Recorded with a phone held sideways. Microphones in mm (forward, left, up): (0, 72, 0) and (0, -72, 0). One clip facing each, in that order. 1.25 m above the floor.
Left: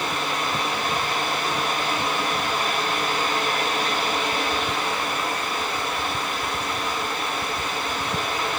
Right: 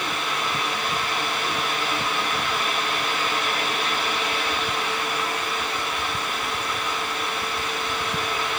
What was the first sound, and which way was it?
A fan, 40° left (ahead or behind).